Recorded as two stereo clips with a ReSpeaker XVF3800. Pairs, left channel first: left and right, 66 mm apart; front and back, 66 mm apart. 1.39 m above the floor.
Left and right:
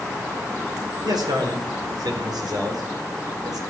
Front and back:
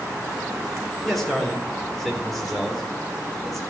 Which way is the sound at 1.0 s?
90° right.